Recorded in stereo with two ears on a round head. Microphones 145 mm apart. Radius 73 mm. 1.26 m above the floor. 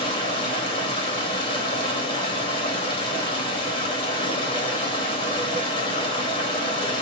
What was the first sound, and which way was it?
Running water, 30° left (ahead or behind).